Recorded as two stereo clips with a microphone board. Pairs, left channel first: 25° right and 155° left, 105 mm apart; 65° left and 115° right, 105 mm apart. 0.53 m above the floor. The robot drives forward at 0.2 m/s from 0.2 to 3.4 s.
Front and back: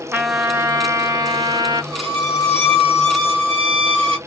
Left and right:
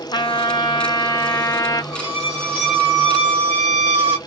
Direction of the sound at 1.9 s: Straight behind.